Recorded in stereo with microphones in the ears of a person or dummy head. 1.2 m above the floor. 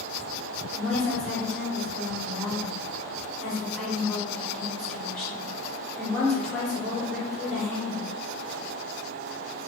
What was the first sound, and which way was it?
A woman speaking, 5° left (ahead or behind).